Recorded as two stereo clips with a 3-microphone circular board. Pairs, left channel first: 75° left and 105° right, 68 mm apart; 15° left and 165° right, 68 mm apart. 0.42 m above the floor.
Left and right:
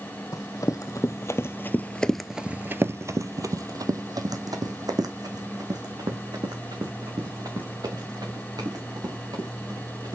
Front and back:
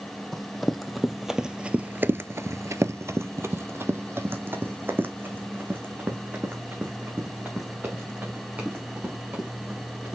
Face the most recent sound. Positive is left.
turn(degrees=-100)